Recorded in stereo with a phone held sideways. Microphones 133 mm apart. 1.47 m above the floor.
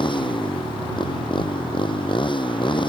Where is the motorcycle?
40° left (ahead or behind).